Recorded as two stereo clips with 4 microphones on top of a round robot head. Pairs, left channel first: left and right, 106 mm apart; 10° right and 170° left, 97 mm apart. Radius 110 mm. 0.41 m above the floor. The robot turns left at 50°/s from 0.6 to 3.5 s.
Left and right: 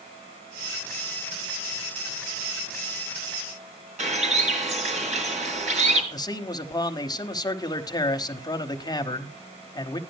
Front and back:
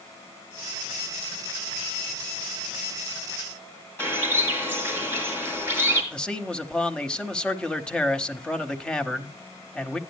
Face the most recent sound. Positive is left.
turn(degrees=65)